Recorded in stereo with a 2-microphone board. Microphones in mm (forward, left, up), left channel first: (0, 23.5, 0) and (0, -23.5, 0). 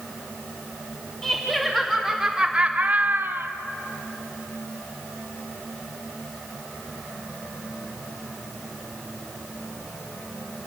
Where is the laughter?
10° left (ahead or behind), 3 m; by 3.5 s 60° right (ahead or behind), 1.5 m.